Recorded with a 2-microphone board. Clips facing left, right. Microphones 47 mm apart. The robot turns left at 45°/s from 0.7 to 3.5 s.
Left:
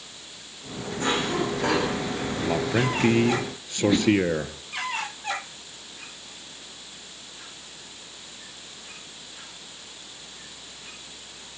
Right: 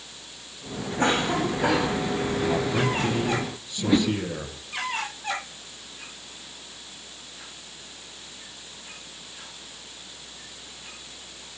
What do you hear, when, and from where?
1.0 s a cough: 140° right, 9.5 m; by 2.0 s 175° left, 9.5 m
2.4 s a man speaking: 150° left, 2.5 m; by 4.6 s 100° left, 2.5 m
3.8 s a whoosh: 5° right (ahead or behind), 3 m